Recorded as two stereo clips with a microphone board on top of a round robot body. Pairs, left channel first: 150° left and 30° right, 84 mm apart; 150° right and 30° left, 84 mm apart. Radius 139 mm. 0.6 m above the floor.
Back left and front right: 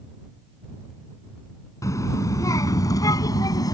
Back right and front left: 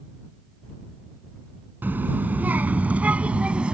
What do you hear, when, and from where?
1.8 s a child speaking: 100° left; by 3.7 s 110° left